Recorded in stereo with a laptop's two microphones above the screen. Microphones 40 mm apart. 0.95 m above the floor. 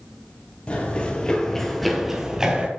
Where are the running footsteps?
30° left (ahead or behind), 1.2 m; by 2.7 s 20° right (ahead or behind), 1.2 m.